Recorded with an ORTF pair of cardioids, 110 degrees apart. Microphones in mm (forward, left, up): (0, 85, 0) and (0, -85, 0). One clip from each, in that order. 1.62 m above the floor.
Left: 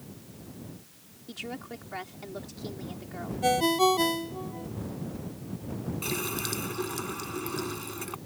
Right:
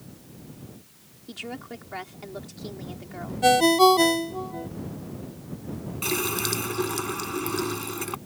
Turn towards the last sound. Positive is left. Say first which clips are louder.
# right 6 dB
turn(degrees=-35)